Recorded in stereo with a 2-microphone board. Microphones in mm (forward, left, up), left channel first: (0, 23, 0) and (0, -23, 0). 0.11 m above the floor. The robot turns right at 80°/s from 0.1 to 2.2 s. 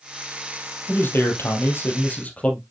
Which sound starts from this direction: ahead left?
A man speaking, at 0.9 s.